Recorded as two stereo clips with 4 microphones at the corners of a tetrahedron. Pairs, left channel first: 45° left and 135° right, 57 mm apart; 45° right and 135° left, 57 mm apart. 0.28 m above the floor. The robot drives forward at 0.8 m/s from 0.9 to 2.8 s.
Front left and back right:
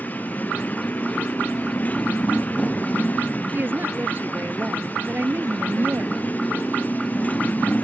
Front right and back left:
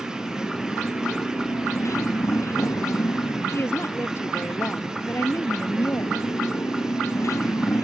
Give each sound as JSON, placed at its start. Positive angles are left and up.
{"t": 0.0, "sound": "a motorcycle", "azimuth_deg": -15}
{"t": 3.5, "sound": "a woman speaking", "azimuth_deg": -80}